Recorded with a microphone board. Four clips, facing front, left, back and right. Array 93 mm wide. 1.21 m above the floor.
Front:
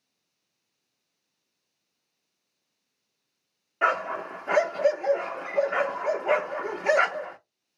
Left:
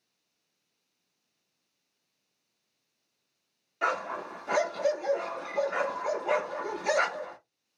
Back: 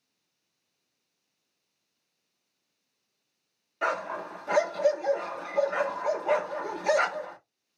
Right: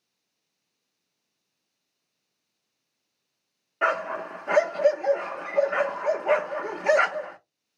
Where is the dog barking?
50° right, 0.8 m.